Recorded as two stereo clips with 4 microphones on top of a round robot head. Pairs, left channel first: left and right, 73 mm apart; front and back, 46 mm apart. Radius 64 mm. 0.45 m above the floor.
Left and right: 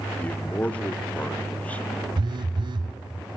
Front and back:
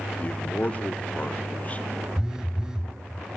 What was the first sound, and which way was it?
A man speaking, 30° left.